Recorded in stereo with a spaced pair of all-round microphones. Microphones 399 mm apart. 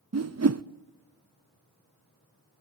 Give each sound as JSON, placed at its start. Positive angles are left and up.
{"t": 0.1, "sound": "a whoosh", "side_deg": -40, "distance_m": 0.5}